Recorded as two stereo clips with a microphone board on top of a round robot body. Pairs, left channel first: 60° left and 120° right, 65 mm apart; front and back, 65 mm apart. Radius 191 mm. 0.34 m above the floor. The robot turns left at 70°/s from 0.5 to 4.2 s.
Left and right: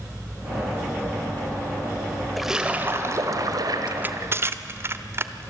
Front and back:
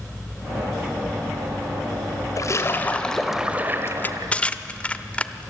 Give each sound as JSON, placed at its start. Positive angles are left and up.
{"t": 2.4, "sound": "a splash", "azimuth_deg": -30, "distance_m": 2.0}
{"t": 3.9, "sound": "crushing", "azimuth_deg": -50, "distance_m": 1.0}